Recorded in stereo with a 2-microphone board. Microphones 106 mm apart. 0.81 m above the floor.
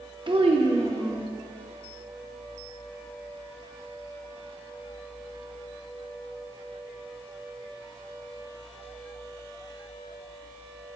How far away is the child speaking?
About 0.7 m.